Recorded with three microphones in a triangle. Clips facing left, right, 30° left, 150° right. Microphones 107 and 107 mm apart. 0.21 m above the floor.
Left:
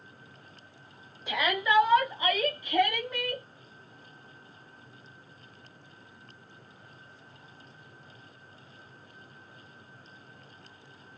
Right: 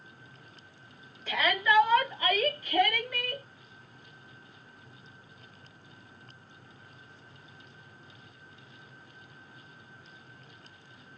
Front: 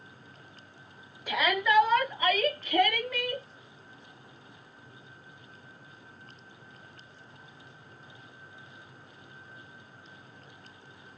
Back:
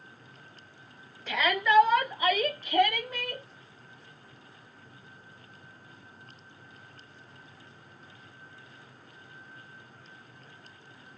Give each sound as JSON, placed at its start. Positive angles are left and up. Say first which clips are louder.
{"t": 1.3, "sound": "a shout", "louder": "even, even", "azimuth_deg": 80, "distance_m": 1.1}